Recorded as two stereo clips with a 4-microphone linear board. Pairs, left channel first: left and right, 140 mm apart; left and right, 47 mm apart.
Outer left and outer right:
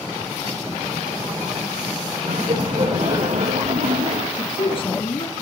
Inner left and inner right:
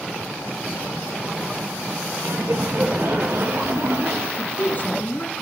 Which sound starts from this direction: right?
Laughter, at 2.2 s.